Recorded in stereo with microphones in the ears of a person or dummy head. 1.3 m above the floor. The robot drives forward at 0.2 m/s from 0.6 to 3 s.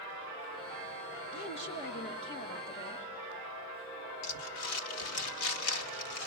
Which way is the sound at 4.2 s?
75° left (ahead or behind).